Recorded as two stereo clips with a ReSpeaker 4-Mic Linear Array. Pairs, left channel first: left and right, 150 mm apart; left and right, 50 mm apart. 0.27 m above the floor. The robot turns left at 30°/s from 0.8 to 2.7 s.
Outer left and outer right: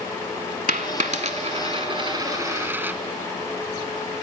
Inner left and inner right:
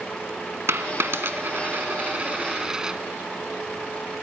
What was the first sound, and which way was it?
A dropped coin, 65° right (ahead or behind).